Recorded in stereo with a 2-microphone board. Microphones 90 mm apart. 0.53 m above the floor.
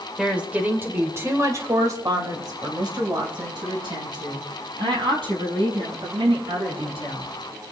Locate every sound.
0.2 s a woman speaking: 10° right (ahead or behind), 1.9 m; by 7.3 s 75° right (ahead or behind), 6.5 m